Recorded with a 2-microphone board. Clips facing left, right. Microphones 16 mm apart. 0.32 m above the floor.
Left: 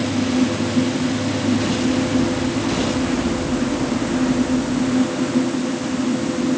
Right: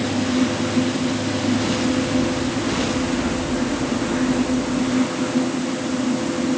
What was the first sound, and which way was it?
Only background noise.